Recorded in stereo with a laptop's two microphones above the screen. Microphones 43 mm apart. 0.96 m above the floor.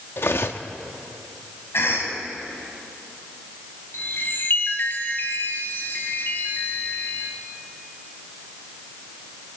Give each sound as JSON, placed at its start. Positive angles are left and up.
{"t": 0.2, "sound": "cutlery clinking", "side_deg": 70, "distance_m": 1.0}
{"t": 1.7, "sound": "a cough", "side_deg": 80, "distance_m": 6.5}
{"t": 3.9, "sound": "a chime", "side_deg": 60, "distance_m": 2.5}